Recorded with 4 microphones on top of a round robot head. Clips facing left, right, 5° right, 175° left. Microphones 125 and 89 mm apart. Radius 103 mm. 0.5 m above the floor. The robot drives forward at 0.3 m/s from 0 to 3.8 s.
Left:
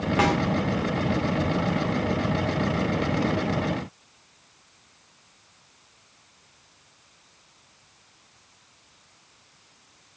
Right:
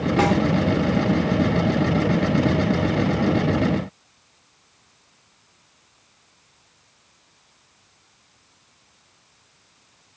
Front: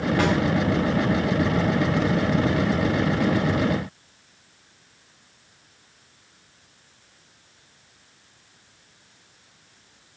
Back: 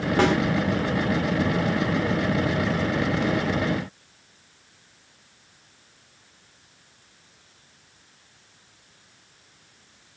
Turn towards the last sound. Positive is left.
turn(degrees=-150)